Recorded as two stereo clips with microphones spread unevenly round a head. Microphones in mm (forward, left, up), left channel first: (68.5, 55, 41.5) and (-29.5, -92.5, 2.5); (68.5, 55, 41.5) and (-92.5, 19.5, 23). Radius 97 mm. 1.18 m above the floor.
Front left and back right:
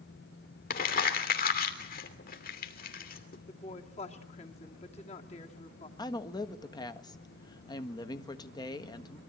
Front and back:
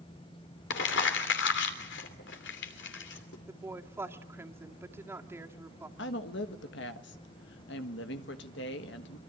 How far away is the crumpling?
About 3 m.